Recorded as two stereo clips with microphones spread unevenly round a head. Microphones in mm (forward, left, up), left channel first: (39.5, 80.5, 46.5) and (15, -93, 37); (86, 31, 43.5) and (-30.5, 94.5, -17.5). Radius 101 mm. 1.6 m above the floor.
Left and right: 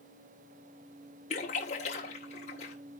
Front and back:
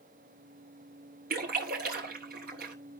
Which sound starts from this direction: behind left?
A splash, at 1.3 s.